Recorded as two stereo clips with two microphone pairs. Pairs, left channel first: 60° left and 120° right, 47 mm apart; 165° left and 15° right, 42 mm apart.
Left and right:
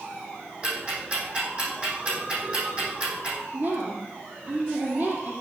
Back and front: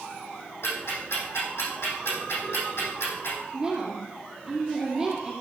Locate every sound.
0.6 s ticking: 175° left, 5.5 m
3.5 s a woman speaking: 85° right, 5 m